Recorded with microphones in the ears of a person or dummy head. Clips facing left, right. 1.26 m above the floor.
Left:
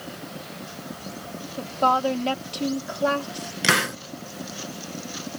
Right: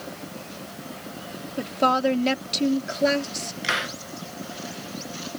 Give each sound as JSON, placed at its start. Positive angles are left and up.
{"t": 1.6, "sound": "a woman speaking", "side_deg": -30}
{"t": 3.6, "sound": "a hiss", "side_deg": 65}